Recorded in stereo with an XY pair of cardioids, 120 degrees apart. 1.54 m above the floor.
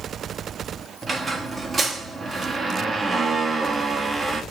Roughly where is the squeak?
Ahead right.